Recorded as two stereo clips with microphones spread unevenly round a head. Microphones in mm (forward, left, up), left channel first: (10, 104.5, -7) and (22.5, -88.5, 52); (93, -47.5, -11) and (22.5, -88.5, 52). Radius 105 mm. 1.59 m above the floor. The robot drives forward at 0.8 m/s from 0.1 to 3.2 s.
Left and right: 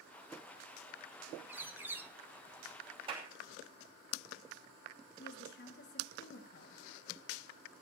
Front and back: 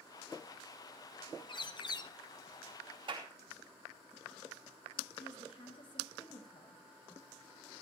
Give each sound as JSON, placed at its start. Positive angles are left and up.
{"t": 1.5, "sound": "a bird", "azimuth_deg": -25, "distance_m": 1.3}
{"t": 3.1, "sound": "a clap", "azimuth_deg": -150, "distance_m": 3.0}
{"t": 5.2, "sound": "a woman speaking", "azimuth_deg": 60, "distance_m": 2.0}